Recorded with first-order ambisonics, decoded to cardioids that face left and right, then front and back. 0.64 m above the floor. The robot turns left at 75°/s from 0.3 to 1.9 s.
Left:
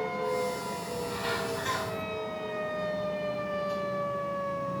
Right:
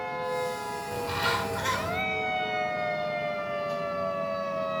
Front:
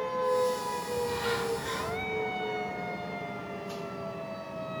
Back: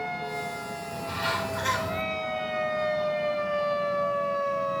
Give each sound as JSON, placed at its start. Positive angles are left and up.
{"t": 0.9, "sound": "a bird", "azimuth_deg": -85, "distance_m": 3.0}